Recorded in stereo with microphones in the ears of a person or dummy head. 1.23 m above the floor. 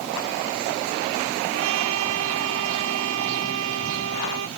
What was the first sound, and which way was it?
A trumpet, 80° right.